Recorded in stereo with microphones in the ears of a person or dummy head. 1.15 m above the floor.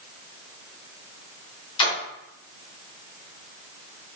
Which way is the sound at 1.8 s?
25° left (ahead or behind).